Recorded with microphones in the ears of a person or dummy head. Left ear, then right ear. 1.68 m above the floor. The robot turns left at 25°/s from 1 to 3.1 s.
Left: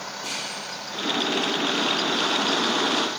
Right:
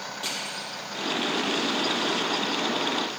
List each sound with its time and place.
0.2 s crushing: 35° right (ahead or behind), 2.5 m